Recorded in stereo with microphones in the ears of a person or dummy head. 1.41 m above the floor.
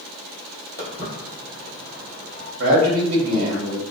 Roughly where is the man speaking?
Right.